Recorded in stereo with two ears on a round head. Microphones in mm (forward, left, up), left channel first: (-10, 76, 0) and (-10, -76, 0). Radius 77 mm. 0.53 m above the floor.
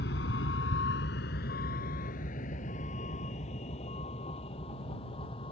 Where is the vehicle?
65° left (ahead or behind); by 5.5 s 35° left (ahead or behind).